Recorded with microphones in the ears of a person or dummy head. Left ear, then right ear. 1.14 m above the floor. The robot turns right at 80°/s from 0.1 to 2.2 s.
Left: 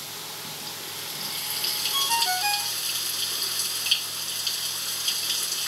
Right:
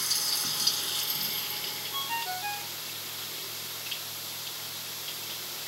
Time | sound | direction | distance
0.0 | running water | 105° right | ?
1.9 | a ringtone | 10° left (ahead or behind) | ?